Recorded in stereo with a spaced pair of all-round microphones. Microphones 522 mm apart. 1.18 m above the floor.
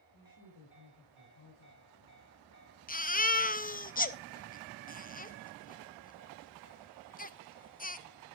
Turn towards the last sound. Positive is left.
turn(degrees=15)  # may be behind; listen again after turning